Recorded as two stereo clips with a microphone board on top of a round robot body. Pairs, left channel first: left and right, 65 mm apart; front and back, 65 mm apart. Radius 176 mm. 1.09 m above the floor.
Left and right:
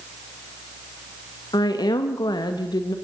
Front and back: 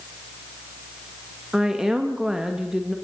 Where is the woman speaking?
100° left, 1.5 m.